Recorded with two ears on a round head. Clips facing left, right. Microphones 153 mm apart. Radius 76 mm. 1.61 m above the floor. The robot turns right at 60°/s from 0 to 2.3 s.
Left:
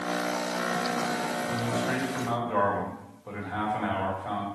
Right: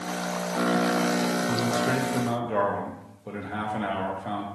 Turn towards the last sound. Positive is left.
turn(degrees=-35)